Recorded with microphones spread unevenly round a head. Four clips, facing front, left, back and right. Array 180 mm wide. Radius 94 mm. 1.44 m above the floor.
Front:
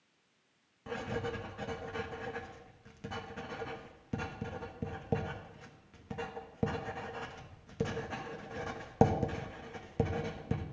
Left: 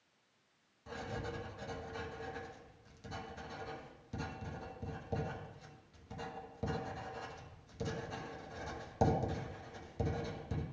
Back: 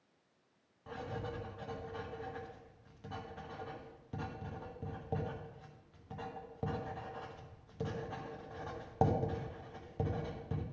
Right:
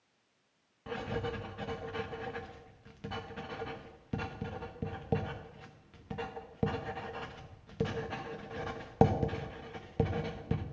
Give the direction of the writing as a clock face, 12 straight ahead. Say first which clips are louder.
Right 6 dB, front 5 dB; 1 o'clock.